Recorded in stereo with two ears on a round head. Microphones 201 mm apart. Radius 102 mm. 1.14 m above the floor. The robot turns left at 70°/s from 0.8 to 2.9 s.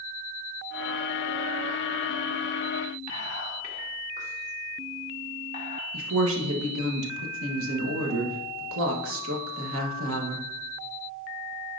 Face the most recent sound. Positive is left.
turn(degrees=-65)  # may be behind; listen again after turning